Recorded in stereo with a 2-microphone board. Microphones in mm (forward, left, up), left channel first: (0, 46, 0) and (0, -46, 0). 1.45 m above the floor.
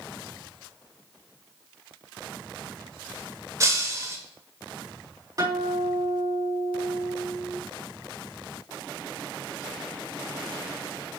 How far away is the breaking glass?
About 1.4 m.